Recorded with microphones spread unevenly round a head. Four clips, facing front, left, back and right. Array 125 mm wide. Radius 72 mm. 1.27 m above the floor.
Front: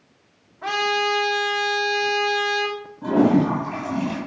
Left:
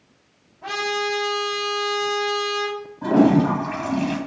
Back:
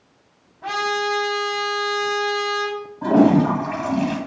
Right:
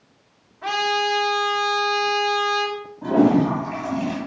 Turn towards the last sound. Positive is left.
turn(degrees=170)